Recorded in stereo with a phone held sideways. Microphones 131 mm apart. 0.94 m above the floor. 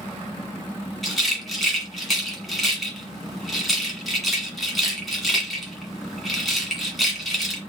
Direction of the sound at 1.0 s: Centre (ahead or behind).